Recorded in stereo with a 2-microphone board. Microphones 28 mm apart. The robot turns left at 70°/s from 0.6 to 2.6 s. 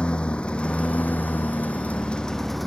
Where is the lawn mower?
145° left; by 2.7 s 5° left.